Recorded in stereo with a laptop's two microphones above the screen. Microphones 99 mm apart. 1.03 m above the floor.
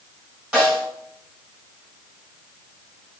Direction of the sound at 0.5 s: 10° right (ahead or behind).